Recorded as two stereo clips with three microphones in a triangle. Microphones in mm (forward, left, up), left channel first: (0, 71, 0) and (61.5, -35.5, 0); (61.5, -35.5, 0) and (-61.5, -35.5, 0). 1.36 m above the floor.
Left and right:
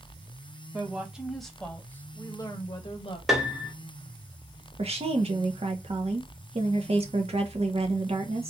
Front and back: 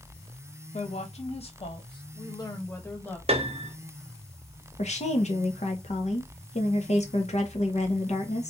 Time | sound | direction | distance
0.7 | a woman speaking | 15° left | 1.3 m
3.3 | a piano | 150° right | 0.7 m
4.8 | a woman speaking | 25° right | 1.1 m